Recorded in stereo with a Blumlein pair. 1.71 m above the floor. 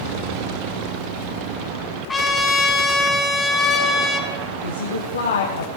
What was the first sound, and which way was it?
A trumpet, 10° left.